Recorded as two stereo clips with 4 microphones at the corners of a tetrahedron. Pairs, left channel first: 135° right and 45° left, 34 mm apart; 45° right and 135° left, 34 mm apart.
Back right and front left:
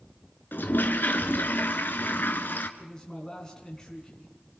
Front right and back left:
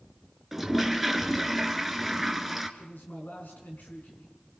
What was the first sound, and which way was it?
A toilet flushing, 140° right.